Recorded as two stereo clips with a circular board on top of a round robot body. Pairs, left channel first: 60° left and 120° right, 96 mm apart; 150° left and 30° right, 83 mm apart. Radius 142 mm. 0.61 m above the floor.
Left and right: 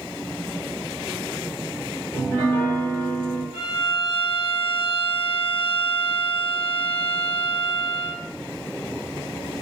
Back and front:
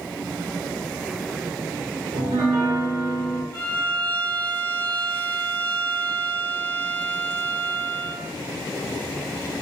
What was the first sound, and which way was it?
A piano, 10° right.